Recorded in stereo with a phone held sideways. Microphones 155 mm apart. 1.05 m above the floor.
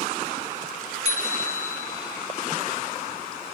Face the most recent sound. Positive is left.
turn(degrees=-45)  # may be behind; listen again after turning